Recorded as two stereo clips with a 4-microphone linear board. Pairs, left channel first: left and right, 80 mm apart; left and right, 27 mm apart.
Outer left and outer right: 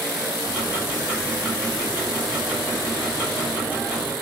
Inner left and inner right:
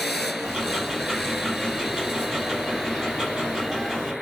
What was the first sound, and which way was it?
Ticking, 20° right (ahead or behind).